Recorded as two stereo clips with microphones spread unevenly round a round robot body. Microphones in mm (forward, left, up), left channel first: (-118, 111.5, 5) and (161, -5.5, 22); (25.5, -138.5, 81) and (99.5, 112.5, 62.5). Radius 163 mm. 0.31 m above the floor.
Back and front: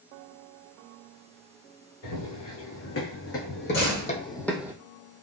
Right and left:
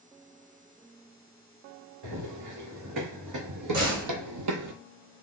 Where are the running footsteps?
115° left, 1.6 m; by 4.7 s 55° left, 0.5 m.